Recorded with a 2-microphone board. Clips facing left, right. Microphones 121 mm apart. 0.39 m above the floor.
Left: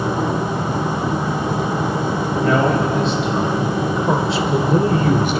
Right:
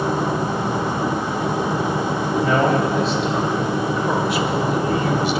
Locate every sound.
2.4 s a man speaking: 15° right (ahead or behind), 1.9 m; by 5.4 s 50° left (ahead or behind), 1.5 m